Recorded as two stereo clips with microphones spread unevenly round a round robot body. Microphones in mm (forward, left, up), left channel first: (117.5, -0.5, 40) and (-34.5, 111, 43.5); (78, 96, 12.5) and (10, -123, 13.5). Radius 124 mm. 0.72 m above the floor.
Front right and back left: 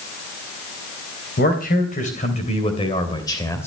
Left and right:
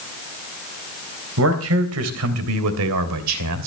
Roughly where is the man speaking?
Right.